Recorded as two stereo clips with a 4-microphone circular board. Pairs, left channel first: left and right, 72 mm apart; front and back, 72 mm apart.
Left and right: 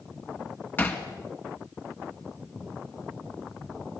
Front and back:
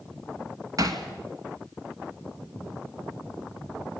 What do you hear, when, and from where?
0.8 s hammering: 150° left, 2 m